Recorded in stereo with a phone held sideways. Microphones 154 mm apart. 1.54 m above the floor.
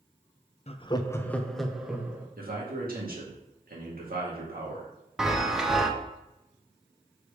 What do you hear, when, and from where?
0.7 s laughter: 45° left (ahead or behind), 0.6 m; by 2.3 s 10° right (ahead or behind), 1.4 m
2.4 s a man speaking: 75° right (ahead or behind), 2 m
5.2 s a chime: 5° right (ahead or behind), 0.8 m